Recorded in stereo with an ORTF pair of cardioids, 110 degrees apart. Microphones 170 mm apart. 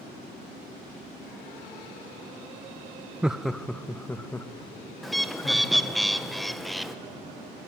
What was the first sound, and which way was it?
Laughter, 5° right.